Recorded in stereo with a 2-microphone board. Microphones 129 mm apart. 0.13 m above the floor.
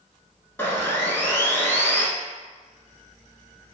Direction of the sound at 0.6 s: 20° left (ahead or behind).